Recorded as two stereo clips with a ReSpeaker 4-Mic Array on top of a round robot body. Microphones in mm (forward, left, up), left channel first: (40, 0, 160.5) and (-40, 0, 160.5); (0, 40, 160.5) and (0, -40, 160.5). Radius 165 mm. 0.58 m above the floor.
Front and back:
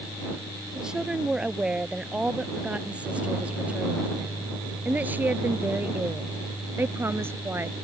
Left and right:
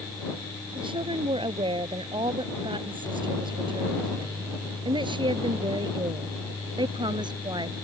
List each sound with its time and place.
0.8 s a woman speaking: 100° right; by 7.8 s 120° right